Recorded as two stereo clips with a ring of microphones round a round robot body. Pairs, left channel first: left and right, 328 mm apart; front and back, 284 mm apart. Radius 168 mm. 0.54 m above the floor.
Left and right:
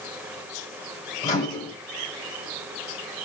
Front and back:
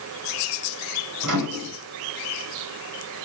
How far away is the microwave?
About 2.5 m.